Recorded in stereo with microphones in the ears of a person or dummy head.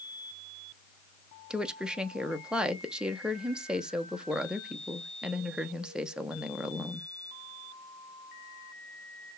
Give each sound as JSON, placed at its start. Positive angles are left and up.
{"t": 1.5, "sound": "a woman speaking", "side_deg": -5, "distance_m": 0.5}